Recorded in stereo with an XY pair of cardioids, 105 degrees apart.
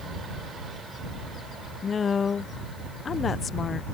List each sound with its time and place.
1.8 s a woman speaking: 40° left